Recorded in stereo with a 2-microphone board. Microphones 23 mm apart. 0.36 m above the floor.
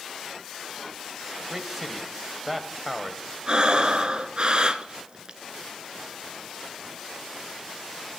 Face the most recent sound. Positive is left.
turn(degrees=-45)  # may be behind; listen again after turning